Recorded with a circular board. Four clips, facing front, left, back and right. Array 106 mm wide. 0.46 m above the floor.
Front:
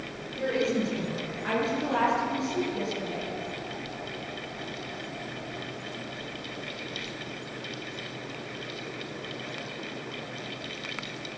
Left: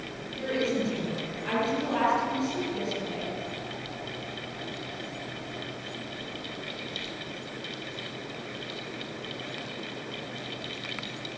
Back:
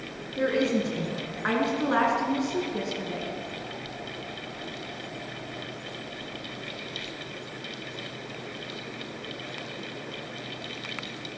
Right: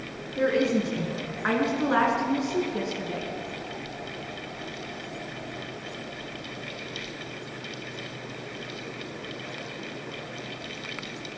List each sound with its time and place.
0.4 s a woman speaking: 125° right, 6.5 m